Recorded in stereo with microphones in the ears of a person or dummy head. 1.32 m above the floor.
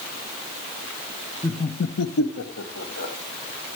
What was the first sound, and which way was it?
Laughter, 10° left (ahead or behind).